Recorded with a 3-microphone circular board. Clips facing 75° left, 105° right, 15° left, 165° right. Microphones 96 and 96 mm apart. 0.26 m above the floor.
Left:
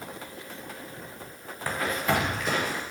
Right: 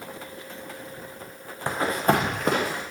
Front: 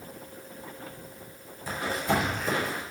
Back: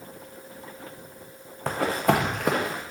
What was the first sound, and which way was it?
Running footsteps, 170° right.